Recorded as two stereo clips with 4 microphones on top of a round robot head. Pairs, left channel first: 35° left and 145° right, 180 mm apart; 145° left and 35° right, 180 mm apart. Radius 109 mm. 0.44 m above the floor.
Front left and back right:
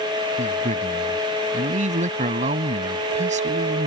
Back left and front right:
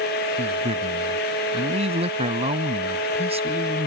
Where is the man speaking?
95° right.